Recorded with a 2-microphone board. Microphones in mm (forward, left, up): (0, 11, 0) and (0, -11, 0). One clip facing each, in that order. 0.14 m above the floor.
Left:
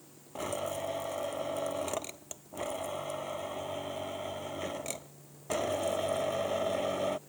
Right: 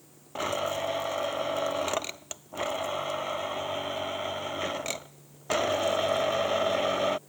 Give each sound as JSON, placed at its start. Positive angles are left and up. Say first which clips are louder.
{"t": 0.3, "sound": "a blender", "louder": "right 6 dB", "side_deg": -45}